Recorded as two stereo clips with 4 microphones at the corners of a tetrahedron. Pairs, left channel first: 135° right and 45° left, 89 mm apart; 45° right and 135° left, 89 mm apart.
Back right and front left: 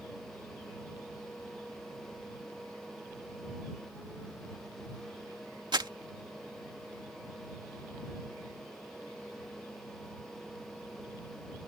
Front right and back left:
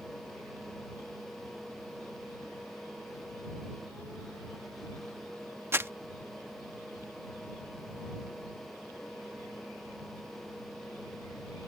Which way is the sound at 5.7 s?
75° left.